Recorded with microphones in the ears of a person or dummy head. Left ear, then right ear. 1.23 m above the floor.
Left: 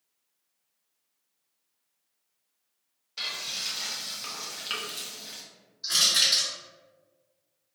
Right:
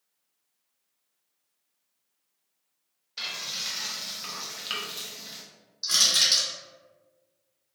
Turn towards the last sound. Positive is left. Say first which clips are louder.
# right 1 dB
turn(degrees=-55)  # may be behind; listen again after turning